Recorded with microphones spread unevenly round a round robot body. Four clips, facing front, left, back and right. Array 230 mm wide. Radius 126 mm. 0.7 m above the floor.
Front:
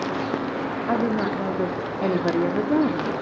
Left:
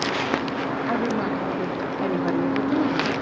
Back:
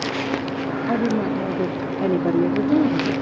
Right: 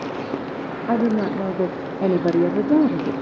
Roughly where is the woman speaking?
Behind right.